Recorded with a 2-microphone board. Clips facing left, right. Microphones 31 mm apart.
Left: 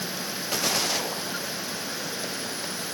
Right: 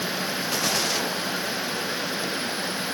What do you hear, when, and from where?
Only background noise.